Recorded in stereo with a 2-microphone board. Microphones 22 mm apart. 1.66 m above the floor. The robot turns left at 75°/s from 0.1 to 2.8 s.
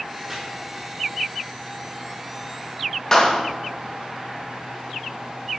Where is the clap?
30° left (ahead or behind), 1.8 m.